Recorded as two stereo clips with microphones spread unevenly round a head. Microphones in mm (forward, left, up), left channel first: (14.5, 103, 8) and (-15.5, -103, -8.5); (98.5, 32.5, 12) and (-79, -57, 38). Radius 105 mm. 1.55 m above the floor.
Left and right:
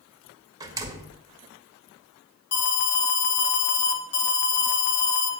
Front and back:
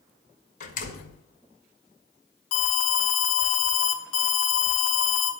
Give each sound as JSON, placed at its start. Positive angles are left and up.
{"t": 0.6, "sound": "a door slam", "azimuth_deg": -25, "distance_m": 1.8}
{"t": 2.5, "sound": "an alarm", "azimuth_deg": 45, "distance_m": 1.3}